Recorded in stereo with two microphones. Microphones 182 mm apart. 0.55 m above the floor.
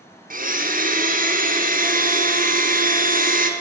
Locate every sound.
0.3 s a blender: 50° right (ahead or behind), 1.0 m